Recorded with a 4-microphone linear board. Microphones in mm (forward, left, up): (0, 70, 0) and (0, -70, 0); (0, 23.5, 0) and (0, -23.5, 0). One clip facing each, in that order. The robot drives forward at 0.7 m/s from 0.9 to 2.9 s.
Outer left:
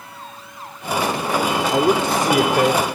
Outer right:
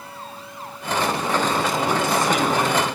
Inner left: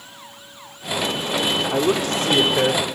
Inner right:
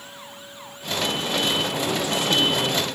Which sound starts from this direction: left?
A man speaking, at 1.7 s.